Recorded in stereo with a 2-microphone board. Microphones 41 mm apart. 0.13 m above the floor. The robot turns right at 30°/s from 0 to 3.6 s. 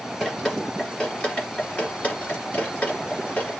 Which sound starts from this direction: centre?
Dripping, at 0.2 s.